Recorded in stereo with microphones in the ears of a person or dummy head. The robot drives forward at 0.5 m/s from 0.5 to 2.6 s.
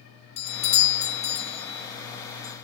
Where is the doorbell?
35° left (ahead or behind), 0.6 m; by 2.5 s 20° left (ahead or behind), 1.1 m.